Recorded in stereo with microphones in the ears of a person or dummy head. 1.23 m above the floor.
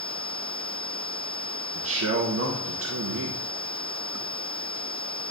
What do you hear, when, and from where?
1.8 s a man speaking: 70° right (ahead or behind), 0.8 m